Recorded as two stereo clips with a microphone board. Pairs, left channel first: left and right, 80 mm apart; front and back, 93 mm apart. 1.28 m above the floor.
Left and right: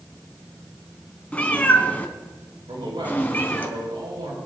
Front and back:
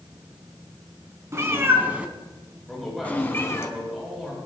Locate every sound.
1.3 s a cat meowing: 150° left, 1.4 m; by 3.7 s 35° left, 1.5 m
2.7 s a man speaking: 90° right, 5.5 m